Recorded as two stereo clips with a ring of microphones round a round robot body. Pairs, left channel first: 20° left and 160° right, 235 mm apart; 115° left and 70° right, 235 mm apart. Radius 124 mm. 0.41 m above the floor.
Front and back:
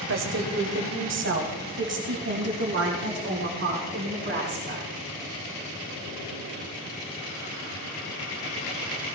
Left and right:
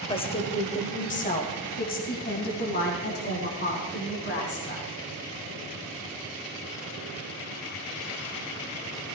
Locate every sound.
0.1 s a woman speaking: straight behind, 1.8 m; by 4.8 s 155° left, 5 m